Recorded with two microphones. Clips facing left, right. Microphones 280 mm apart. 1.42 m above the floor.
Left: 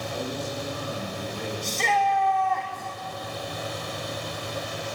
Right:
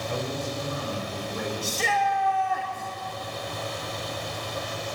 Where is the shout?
10° right (ahead or behind), 3.5 m.